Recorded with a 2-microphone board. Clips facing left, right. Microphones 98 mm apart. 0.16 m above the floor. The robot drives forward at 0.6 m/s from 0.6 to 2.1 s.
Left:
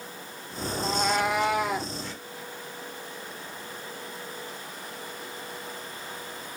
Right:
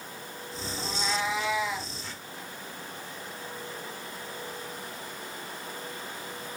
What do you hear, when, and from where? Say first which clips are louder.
0.8 s a cat meowing: left 6 dB; 60° left (ahead or behind), 1.0 m; by 1.9 s 50° left (ahead or behind), 1.2 m